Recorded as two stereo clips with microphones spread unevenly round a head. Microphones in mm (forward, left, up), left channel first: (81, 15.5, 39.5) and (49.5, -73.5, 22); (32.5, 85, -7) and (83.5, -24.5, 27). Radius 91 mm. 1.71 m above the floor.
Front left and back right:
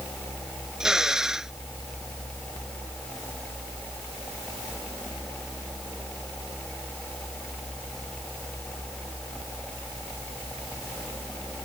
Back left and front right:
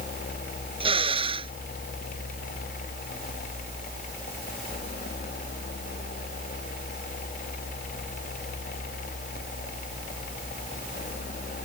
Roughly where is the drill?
Ahead right.